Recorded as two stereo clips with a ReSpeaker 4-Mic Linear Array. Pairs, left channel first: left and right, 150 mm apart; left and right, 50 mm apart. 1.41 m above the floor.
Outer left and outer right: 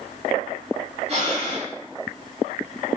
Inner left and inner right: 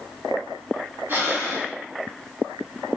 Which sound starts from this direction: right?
Breathing, at 1.1 s.